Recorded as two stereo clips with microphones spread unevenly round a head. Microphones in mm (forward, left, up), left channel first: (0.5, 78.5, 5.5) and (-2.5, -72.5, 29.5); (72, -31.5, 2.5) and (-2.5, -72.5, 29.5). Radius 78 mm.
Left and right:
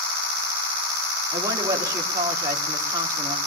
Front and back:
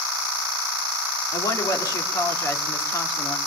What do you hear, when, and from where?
1.3 s a woman speaking: 25° right, 3 m